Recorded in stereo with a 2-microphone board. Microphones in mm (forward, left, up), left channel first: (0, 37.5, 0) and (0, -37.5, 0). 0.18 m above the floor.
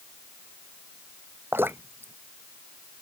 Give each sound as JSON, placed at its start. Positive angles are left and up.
{"t": 1.5, "sound": "dripping", "side_deg": -30}